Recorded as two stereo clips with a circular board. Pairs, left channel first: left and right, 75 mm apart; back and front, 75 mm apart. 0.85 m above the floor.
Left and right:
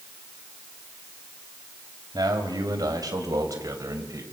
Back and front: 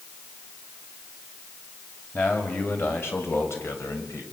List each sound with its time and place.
2.1 s a man speaking: 120° right, 5.5 m; by 4.2 s 135° right, 5 m